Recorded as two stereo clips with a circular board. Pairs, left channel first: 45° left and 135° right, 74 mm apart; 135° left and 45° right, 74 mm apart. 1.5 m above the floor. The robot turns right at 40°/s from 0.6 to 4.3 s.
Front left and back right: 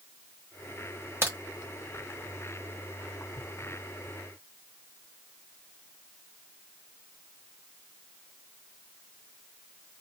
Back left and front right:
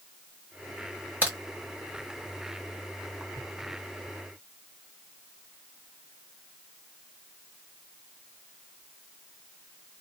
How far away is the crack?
About 1.7 m.